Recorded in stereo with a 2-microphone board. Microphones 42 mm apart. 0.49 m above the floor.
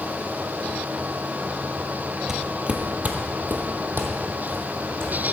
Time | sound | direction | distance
2.3 | footsteps | 15° right (ahead or behind) | 0.7 m